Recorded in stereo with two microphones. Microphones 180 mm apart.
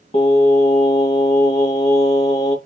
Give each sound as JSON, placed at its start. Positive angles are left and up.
{"t": 0.1, "sound": "singing", "side_deg": 40, "distance_m": 2.5}